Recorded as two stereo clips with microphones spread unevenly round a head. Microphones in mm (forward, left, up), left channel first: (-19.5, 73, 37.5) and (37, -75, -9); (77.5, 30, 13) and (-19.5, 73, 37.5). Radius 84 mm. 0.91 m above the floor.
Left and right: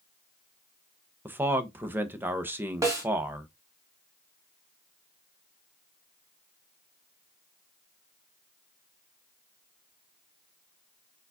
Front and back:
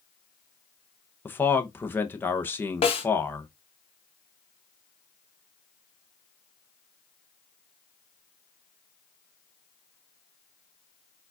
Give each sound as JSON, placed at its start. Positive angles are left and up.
{"t": 1.2, "sound": "a man speaking", "azimuth_deg": -40, "distance_m": 0.7}
{"t": 2.8, "sound": "a snare drum", "azimuth_deg": 10, "distance_m": 1.3}